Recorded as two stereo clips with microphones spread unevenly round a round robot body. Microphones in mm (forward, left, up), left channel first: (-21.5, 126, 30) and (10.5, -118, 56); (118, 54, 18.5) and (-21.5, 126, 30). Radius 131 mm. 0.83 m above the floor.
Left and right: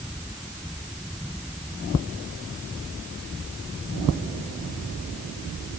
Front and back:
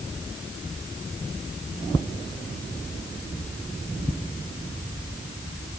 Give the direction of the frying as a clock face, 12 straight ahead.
No frying in this recording.